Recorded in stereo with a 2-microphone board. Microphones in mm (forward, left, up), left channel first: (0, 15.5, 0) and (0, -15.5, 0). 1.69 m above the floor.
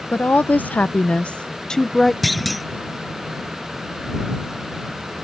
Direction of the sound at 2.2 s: 5° left (ahead or behind).